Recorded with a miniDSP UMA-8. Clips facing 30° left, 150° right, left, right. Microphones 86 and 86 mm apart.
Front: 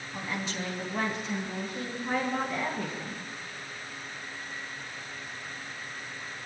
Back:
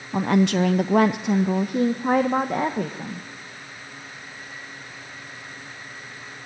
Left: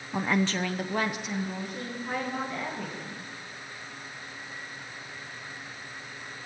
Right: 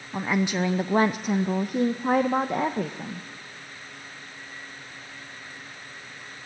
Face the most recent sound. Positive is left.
turn(degrees=-110)